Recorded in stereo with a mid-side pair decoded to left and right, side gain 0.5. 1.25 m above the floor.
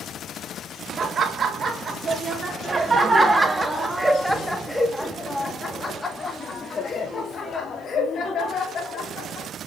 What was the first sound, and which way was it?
Laughter, 45° right.